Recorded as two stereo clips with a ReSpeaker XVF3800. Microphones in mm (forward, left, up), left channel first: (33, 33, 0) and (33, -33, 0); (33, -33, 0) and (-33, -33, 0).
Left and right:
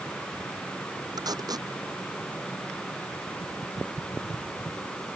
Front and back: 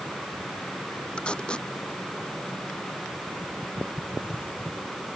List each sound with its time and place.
1.2 s tape being pulled: 75° right